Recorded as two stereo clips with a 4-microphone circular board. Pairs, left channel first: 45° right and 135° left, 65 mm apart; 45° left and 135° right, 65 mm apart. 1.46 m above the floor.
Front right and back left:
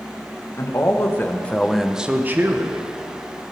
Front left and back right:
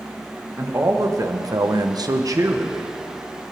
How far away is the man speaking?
About 1.6 m.